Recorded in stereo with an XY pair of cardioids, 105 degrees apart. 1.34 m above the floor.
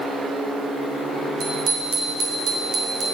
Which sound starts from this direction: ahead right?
A bicycle bell, at 1.4 s.